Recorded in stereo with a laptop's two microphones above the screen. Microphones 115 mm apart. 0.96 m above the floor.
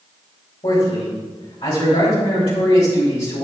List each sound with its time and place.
0.6 s a man speaking: 55° left (ahead or behind), 3.5 m